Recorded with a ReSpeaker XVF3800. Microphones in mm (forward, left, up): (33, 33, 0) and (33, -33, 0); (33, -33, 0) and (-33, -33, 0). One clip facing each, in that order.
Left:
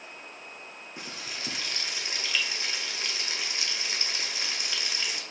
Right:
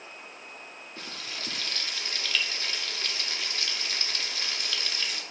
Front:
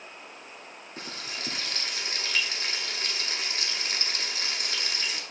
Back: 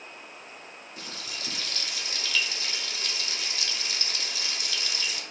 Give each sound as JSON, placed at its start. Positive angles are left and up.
{"t": 1.0, "sound": "frying", "azimuth_deg": 20, "distance_m": 0.6}